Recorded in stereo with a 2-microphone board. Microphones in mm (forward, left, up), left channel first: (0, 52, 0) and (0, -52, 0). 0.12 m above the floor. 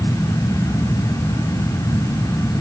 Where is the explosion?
I don't hear an explosion.